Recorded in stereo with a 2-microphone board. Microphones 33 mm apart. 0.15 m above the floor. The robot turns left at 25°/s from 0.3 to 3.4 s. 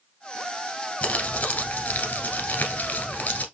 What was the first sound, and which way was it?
Crumpling, 120° left.